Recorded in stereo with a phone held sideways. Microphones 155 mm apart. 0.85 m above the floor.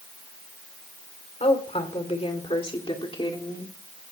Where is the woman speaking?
45° left (ahead or behind), 3 m; by 3.8 s 30° left (ahead or behind), 2 m.